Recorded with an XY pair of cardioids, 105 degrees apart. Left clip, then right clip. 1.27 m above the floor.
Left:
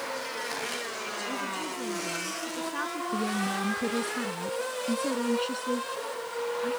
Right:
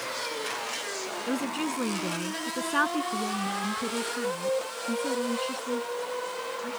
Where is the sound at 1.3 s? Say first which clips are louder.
Right 2 dB; 50° right; by 3.0 s 55° right.